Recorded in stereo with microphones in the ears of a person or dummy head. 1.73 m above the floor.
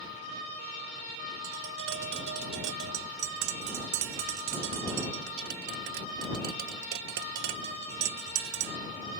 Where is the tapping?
65° right (ahead or behind).